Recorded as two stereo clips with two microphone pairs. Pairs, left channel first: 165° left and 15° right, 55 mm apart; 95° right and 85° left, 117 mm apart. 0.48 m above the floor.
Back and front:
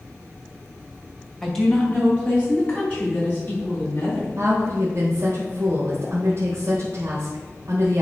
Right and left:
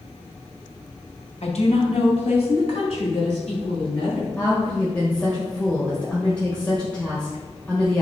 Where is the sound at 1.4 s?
110° right, 1.8 m; by 4.3 s 140° right, 5.5 m.